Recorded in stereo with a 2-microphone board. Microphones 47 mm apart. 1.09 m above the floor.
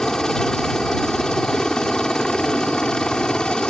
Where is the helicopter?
15° left (ahead or behind).